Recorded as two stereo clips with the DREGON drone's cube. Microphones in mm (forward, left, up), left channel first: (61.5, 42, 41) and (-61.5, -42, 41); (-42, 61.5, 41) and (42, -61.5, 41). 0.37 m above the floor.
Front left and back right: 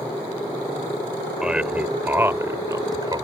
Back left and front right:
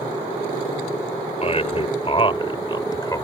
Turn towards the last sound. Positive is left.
turn(degrees=175)